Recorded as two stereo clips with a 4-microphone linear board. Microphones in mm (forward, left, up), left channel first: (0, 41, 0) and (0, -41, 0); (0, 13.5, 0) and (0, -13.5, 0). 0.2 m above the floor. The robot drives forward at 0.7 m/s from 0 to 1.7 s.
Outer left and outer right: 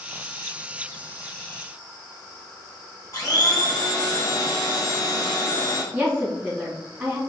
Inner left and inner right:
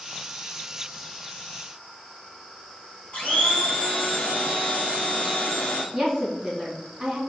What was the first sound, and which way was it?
A blender, 45° left (ahead or behind).